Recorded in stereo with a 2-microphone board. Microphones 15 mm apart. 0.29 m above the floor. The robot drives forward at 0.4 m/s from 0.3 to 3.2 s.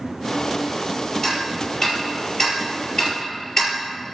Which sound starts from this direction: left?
Ticking, at 1.2 s.